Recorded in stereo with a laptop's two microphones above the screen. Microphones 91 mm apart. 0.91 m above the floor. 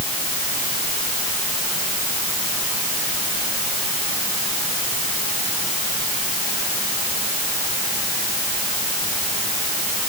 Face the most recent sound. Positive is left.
No sound to turn to.